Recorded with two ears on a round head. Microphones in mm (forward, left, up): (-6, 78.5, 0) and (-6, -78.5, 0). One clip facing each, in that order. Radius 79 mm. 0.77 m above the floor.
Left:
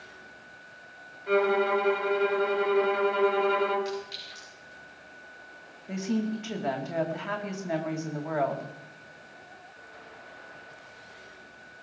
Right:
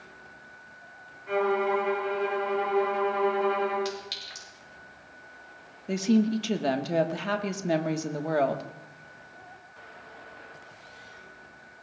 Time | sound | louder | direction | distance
1.3 | a violin | left 2 dB | 75° left (ahead or behind) | 3.5 m
3.9 | a clink | left 1 dB | 85° right | 7.5 m
5.9 | a woman speaking | right 6 dB | 40° right (ahead or behind) | 1.2 m